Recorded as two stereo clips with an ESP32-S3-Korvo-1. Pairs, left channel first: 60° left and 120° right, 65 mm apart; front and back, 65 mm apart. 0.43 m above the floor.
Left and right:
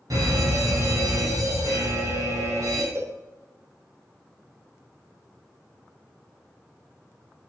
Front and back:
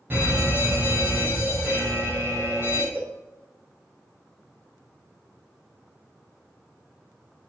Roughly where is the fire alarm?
Behind right.